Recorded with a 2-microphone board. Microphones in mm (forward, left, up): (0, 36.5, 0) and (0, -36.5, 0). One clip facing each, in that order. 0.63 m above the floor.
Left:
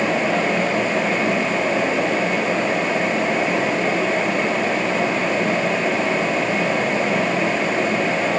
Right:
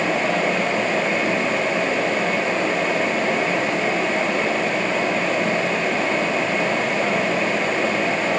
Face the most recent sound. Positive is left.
No sound to turn to.